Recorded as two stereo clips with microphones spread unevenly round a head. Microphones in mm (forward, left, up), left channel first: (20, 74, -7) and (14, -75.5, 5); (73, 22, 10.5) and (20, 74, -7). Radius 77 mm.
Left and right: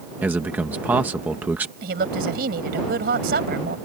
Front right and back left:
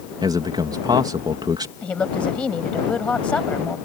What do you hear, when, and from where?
0.2 s a man speaking: 175° right
1.8 s a woman speaking: 125° right